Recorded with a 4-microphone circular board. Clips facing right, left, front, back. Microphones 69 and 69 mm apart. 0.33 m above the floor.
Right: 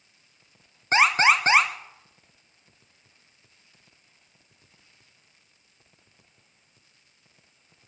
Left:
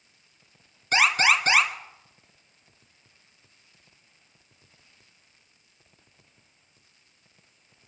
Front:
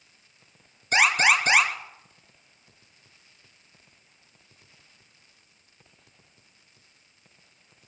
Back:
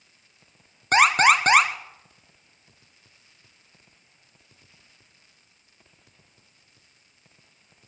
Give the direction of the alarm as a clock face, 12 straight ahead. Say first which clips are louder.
Right 2 dB, back 4 dB; 5 o'clock.